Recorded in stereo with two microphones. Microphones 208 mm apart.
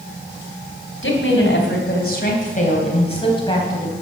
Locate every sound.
1.0 s a woman speaking: 70° left (ahead or behind), 3.5 m; by 3.9 s 15° left (ahead or behind), 4 m